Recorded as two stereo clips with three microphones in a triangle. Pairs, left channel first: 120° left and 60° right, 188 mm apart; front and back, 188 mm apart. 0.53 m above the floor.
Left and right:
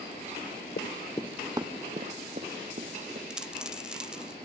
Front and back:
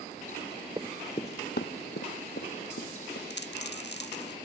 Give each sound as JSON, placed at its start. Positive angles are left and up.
{"t": 0.8, "sound": "running footsteps", "azimuth_deg": 110, "distance_m": 0.9}
{"t": 3.3, "sound": "a dropped coin", "azimuth_deg": 25, "distance_m": 0.8}